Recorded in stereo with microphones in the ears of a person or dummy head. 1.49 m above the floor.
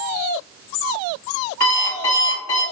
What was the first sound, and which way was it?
An alarm clock, 40° left (ahead or behind).